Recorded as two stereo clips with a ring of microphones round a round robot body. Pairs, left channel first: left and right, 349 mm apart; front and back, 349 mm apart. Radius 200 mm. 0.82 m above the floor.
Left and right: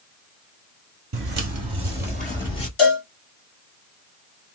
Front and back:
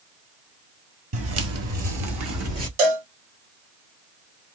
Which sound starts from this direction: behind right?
Footsteps, at 1.1 s.